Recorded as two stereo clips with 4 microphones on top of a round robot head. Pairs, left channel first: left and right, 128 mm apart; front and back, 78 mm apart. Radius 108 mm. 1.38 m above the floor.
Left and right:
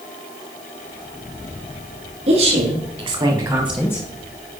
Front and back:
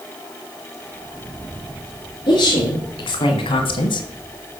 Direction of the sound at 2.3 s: 45° right.